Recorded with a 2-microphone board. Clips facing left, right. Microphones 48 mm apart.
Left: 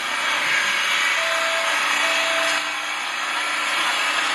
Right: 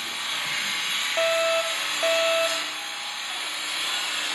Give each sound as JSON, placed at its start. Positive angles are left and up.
{"t": 0.0, "sound": "an engine running", "side_deg": 65, "distance_m": 2.0}
{"t": 1.2, "sound": "a fire alarm", "side_deg": -35, "distance_m": 1.4}